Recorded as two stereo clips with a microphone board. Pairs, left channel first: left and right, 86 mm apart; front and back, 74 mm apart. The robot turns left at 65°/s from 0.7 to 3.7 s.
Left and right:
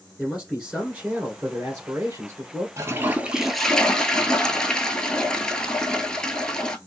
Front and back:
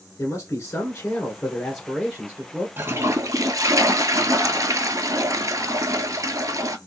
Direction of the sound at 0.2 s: 10° right.